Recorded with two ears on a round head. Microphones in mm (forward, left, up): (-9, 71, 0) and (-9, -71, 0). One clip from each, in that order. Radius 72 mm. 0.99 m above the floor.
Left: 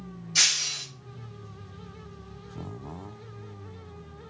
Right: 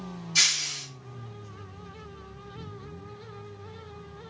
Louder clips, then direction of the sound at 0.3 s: Even; 5° right (ahead or behind).